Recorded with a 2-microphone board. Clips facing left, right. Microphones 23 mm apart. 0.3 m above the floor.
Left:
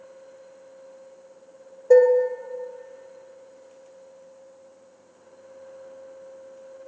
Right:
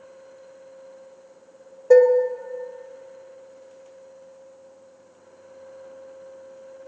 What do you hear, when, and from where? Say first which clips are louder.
1.9 s dishes clattering: right 1 dB; 25° right (ahead or behind), 0.6 m